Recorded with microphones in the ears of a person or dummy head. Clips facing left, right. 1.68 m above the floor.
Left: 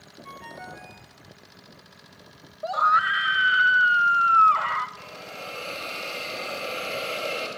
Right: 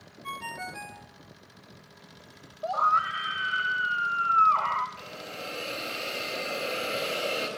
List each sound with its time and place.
0.2 s a ringtone: 40° right (ahead or behind), 1.0 m
2.6 s a scream: 15° left (ahead or behind), 0.7 m
5.0 s a hiss: 15° right (ahead or behind), 4 m